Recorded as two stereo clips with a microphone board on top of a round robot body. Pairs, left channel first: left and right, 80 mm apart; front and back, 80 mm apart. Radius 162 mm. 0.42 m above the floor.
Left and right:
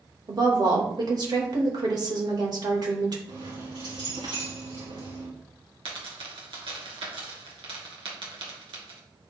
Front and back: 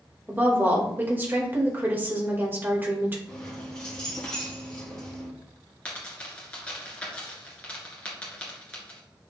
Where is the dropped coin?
75° right, 2.5 m.